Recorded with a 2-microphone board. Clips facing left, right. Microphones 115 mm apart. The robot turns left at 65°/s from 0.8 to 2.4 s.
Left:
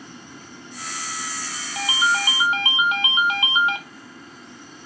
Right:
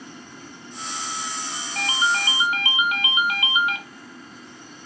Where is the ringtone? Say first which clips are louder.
Left 2 dB; 165° left, 0.6 m; by 3.8 s 120° left, 0.6 m.